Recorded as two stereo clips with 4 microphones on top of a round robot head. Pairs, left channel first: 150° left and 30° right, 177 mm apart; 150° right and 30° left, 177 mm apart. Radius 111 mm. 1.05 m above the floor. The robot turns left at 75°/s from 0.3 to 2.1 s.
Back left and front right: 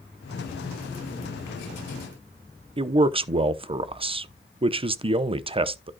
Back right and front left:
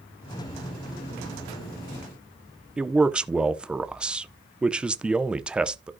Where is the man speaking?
45° right, 0.8 m.